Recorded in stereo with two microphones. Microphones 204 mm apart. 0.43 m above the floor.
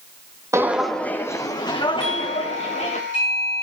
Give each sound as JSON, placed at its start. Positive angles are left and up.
{"t": 0.5, "sound": "footsteps", "side_deg": -15, "distance_m": 1.0}
{"t": 2.0, "sound": "a doorbell", "side_deg": -65, "distance_m": 7.5}